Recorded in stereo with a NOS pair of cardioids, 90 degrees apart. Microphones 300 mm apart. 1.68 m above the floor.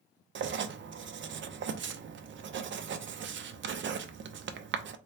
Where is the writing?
40° right, 0.6 m.